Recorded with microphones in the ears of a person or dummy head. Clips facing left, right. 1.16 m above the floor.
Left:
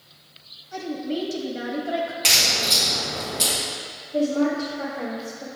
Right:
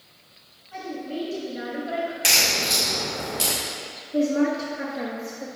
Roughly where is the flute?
No flute in this recording.